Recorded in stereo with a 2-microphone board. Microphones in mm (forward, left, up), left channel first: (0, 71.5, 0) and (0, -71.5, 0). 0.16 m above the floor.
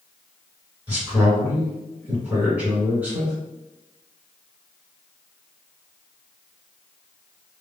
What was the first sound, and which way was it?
A man speaking, 10° right (ahead or behind).